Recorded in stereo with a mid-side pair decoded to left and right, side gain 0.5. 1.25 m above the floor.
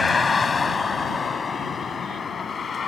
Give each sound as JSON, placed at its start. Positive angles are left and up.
{"t": 0.0, "sound": "a vehicle", "azimuth_deg": 25}